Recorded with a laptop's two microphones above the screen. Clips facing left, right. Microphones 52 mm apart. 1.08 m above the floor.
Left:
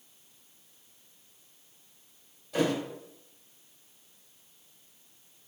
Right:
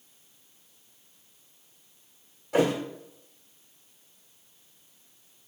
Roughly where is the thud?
Right.